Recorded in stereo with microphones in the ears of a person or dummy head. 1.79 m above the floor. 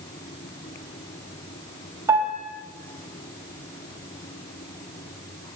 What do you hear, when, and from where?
2.1 s a piano: 15° right (ahead or behind), 5 m